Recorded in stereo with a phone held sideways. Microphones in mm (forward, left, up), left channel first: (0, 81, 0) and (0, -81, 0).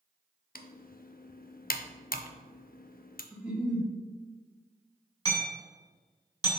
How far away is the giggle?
About 1.5 m.